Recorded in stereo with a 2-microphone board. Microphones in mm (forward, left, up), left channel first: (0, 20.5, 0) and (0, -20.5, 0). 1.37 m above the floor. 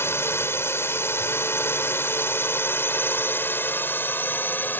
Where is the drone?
85° left; by 4.8 s 55° left (ahead or behind).